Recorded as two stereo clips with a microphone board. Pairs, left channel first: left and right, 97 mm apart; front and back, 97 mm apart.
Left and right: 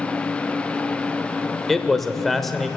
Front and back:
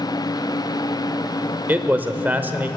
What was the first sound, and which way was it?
A man speaking, 175° left.